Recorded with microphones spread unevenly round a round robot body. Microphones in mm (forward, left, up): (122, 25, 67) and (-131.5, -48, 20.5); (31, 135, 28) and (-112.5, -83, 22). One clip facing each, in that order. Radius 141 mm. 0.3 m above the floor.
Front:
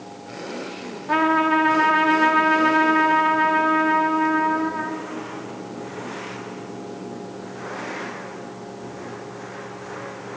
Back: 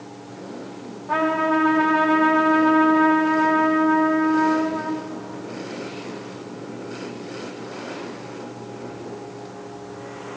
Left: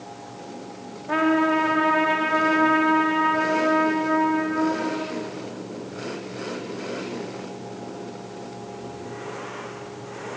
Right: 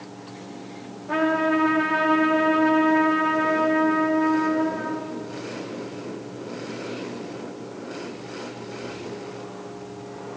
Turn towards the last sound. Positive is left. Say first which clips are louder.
# front 1 dB, left 2 dB
turn(degrees=-30)